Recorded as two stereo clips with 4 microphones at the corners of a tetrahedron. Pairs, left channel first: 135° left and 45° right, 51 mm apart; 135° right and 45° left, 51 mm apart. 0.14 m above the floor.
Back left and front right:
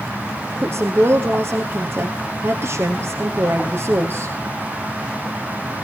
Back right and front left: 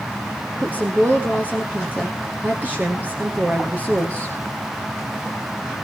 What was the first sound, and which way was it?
A woman speaking, 10° right.